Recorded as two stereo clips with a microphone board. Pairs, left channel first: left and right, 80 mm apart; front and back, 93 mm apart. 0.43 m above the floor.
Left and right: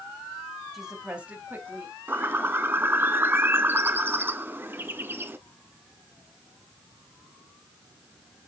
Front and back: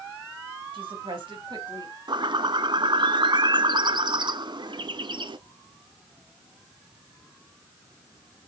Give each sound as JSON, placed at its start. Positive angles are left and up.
{"t": 0.7, "sound": "a woman speaking", "azimuth_deg": -175, "distance_m": 2.5}
{"t": 2.1, "sound": "a bird", "azimuth_deg": -150, "distance_m": 0.5}